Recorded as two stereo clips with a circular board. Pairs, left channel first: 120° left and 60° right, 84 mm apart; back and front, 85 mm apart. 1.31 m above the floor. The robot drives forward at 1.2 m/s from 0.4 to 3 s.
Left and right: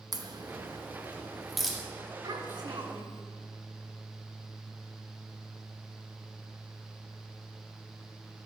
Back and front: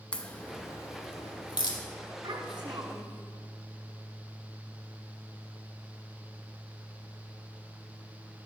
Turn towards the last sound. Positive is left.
turn(degrees=-40)